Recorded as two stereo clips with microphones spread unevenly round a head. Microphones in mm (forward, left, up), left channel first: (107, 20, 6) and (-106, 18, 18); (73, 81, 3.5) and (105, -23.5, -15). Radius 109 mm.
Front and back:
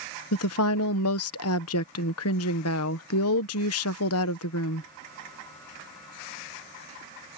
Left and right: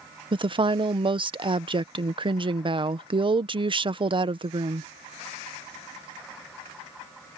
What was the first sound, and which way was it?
A woman speaking, 30° right.